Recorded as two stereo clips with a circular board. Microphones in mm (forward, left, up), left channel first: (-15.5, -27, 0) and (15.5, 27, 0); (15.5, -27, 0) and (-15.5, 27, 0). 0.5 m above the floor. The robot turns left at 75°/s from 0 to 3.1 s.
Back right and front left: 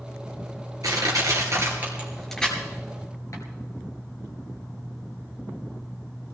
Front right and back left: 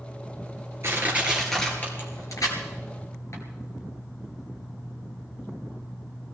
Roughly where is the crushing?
Left.